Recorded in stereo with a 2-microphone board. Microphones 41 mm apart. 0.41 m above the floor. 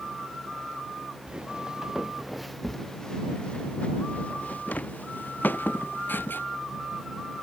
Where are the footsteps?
25° right (ahead or behind); by 6.5 s 55° left (ahead or behind).